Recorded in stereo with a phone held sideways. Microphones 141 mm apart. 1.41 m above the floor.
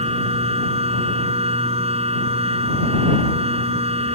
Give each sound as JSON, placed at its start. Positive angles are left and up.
{"t": 0.0, "sound": "a machine running", "side_deg": -45}